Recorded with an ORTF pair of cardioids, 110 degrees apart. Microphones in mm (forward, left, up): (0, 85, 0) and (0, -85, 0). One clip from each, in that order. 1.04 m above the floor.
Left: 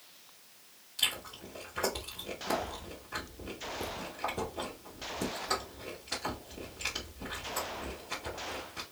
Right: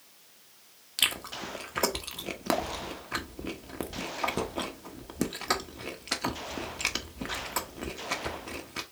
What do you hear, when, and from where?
1.0 s chewing: 70° right, 1.0 m